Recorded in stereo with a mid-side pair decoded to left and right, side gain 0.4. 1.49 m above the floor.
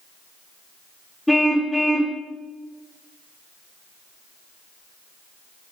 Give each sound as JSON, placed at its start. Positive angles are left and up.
{"t": 1.3, "sound": "a car horn", "azimuth_deg": 10, "distance_m": 2.5}